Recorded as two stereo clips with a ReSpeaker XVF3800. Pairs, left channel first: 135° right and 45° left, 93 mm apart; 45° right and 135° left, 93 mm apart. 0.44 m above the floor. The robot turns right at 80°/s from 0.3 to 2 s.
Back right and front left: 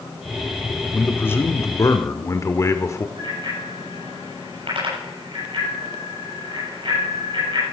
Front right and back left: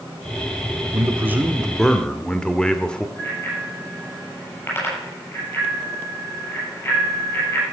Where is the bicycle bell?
20° left, 8 m.